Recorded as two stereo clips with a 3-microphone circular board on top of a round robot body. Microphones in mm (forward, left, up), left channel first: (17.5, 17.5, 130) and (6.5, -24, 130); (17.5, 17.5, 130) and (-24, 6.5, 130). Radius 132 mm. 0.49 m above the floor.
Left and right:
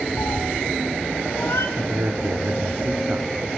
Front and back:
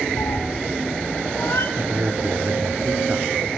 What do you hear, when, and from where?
0.2 s a cat meowing: 35° left, 2.5 m; by 1.7 s 50° left, 2 m
1.8 s a man speaking: 115° right, 1.9 m